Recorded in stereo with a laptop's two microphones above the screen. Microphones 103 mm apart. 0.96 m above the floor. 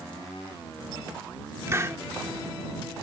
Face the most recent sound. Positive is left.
turn(degrees=-30)  # may be behind; listen again after turning